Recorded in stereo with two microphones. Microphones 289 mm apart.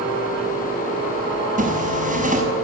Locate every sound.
1.6 s a zipper: 25° right (ahead or behind), 6 m